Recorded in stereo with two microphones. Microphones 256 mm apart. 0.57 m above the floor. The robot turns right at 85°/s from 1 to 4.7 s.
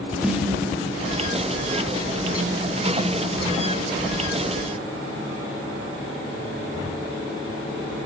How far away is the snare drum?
About 1.2 m.